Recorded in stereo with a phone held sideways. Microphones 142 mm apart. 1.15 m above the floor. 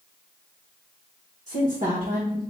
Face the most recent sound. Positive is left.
turn(degrees=-55)  # may be behind; listen again after turning